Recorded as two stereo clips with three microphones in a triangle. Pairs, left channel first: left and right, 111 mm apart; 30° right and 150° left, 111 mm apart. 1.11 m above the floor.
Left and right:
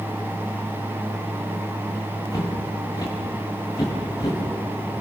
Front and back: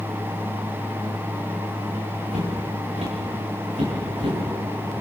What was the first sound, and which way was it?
Footsteps, 140° left.